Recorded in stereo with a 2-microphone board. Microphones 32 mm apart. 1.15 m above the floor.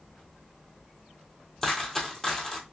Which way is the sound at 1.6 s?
10° left (ahead or behind).